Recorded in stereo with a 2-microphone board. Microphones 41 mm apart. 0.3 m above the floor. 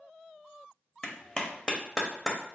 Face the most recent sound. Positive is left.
turn(degrees=20)  # may be behind; listen again after turning